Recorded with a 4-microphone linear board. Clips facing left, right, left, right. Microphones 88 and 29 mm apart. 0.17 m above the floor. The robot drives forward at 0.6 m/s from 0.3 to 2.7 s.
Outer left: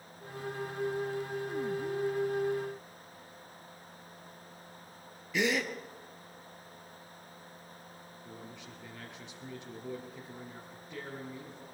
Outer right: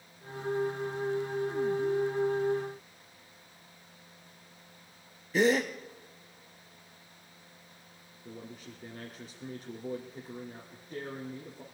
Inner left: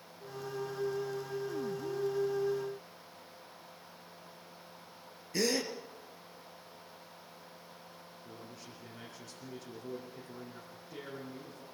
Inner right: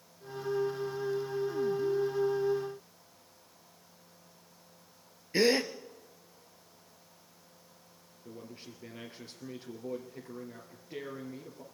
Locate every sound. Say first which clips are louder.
5.3 s a gasp: outer right 5 dB, inner right 6 dB; 40° right (ahead or behind), 1.3 m
8.2 s a man speaking: outer right 4 dB, inner right 4 dB; 45° right (ahead or behind), 2.5 m